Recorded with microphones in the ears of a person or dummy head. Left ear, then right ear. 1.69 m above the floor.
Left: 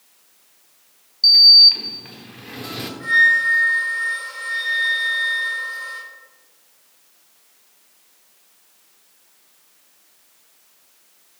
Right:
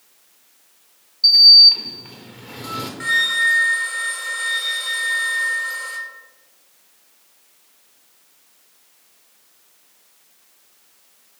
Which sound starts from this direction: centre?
A sliding door, at 1.2 s.